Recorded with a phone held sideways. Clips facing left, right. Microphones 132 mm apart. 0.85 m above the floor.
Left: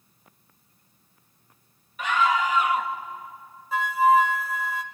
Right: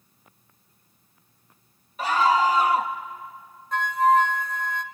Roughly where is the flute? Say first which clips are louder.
Even; centre.